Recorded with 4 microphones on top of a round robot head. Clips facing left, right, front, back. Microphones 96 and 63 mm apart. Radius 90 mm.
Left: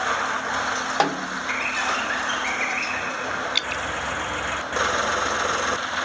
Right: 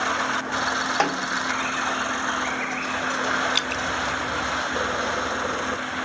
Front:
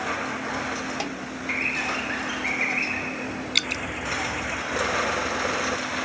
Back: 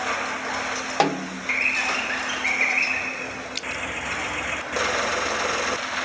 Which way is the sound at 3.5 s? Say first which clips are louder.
Right 2 dB, front 4 dB; 35° right.